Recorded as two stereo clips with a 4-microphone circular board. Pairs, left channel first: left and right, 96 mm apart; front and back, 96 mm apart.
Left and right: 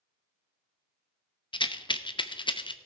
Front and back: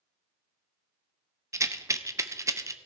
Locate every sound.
1.5 s a rattle: 120° left, 0.6 m